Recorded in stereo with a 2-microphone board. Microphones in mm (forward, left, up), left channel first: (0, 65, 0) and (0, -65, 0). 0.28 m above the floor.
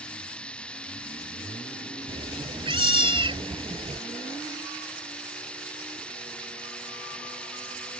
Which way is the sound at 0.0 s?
10° left (ahead or behind).